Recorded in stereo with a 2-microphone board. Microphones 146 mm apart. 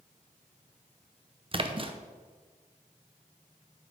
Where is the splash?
35° right (ahead or behind), 0.7 m.